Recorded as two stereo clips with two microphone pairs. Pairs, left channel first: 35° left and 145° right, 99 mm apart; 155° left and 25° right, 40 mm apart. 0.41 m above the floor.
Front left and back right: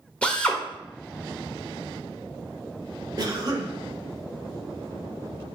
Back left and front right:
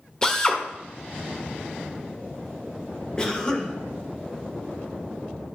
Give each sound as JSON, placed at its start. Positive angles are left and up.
{"t": 0.2, "sound": "a drill", "azimuth_deg": 105, "distance_m": 1.1}
{"t": 3.2, "sound": "a cough", "azimuth_deg": -150, "distance_m": 1.0}